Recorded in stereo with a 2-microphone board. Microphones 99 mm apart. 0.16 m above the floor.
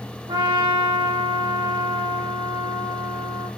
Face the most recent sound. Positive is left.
turn(degrees=-55)  # may be behind; listen again after turning